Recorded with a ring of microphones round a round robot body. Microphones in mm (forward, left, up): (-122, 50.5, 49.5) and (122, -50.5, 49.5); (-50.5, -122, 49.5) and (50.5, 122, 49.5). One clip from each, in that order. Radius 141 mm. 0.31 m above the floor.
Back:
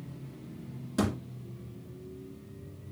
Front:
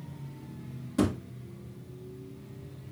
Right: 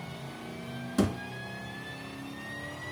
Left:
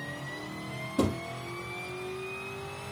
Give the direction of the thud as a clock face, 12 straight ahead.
4 o'clock.